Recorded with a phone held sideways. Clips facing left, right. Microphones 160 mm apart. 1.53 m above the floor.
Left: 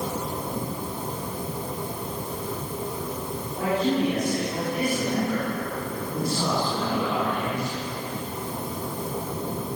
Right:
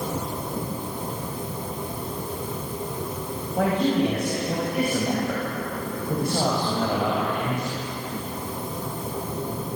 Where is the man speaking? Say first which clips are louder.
Right 2 dB; 65° right (ahead or behind), 9 m; by 7.8 s 50° right (ahead or behind), 7.5 m.